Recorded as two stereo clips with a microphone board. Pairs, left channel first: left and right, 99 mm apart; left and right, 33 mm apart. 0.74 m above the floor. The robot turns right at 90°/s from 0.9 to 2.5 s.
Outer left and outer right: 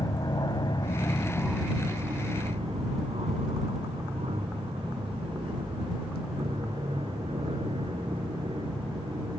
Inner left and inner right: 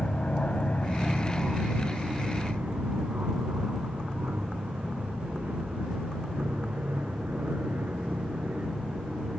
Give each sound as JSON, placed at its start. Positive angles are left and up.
{"t": 0.0, "sound": "an aircraft", "side_deg": 40}